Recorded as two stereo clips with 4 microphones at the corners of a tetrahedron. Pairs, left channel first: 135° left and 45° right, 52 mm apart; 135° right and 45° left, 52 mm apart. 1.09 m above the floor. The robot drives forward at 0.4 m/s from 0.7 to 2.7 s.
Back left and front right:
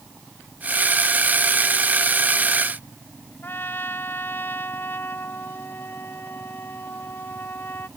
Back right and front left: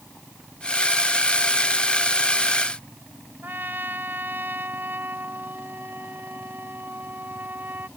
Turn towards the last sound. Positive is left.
turn(degrees=95)